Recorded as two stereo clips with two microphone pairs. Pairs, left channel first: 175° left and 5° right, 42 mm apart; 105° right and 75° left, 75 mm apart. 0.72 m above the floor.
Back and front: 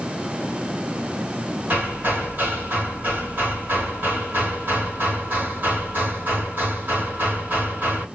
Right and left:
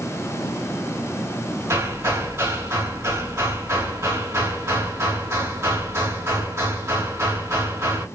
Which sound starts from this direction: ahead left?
Hammering, at 1.7 s.